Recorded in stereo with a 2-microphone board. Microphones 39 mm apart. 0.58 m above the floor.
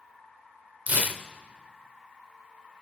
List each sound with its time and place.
0.9 s tearing paper: 45° right (ahead or behind), 0.6 m